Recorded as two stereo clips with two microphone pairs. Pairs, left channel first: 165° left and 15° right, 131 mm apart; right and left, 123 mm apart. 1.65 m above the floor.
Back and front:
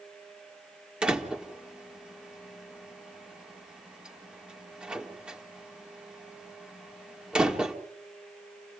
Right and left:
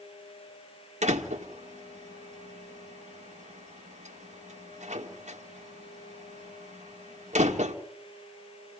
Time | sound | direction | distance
1.0 | a door slam | 70° left | 2 m